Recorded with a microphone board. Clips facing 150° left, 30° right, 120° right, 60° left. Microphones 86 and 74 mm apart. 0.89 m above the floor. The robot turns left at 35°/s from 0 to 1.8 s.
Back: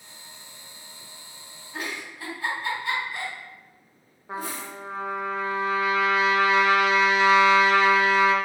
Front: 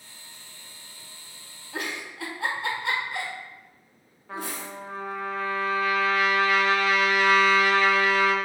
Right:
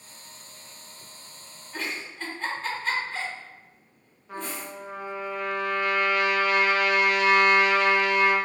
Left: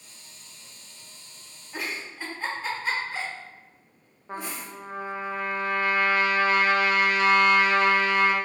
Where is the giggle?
20° right, 1.0 m.